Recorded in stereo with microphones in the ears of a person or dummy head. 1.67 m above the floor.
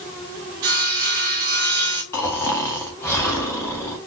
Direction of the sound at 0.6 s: 20° right (ahead or behind).